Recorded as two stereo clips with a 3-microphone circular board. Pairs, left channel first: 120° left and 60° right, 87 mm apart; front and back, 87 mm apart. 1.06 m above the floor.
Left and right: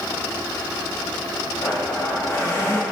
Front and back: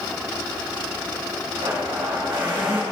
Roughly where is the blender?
Behind.